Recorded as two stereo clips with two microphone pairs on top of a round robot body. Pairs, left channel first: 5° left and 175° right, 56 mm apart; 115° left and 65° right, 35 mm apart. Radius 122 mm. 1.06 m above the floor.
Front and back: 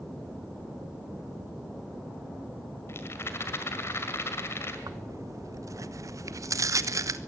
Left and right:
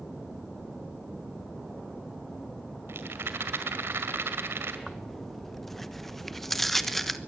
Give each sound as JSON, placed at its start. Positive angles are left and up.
{"t": 2.9, "sound": "a rattle", "azimuth_deg": -45, "distance_m": 2.0}
{"t": 4.9, "sound": "tearing paper", "azimuth_deg": -155, "distance_m": 1.4}